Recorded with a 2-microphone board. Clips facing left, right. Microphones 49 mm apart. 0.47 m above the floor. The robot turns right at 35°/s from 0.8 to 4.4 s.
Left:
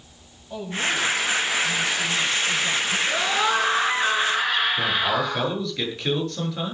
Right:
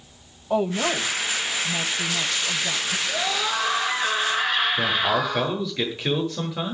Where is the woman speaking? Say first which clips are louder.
Right 4 dB; 80° right, 2 m; by 3.0 s straight ahead, 2 m.